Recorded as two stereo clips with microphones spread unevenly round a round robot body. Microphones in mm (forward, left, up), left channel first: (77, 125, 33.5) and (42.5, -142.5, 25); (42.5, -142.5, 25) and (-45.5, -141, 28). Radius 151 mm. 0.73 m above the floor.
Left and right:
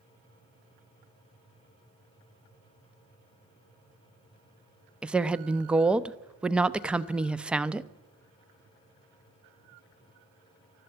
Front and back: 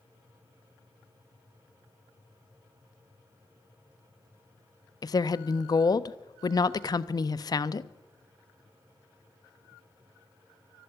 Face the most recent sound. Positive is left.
turn(degrees=-15)